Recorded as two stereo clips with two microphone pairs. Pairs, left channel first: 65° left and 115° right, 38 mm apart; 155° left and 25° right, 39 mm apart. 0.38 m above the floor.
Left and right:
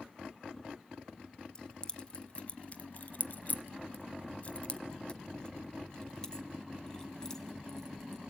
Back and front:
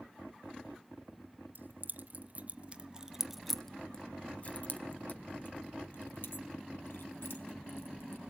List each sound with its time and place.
1.6 s keys jangling: straight ahead, 1.2 m; by 8.2 s 140° left, 2.5 m